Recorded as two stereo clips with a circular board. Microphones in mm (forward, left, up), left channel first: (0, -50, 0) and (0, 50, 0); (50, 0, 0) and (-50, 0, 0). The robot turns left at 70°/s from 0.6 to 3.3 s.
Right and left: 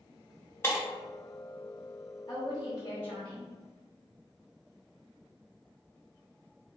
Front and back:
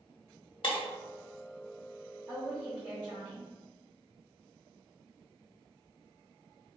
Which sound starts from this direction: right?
A woman speaking, at 2.3 s.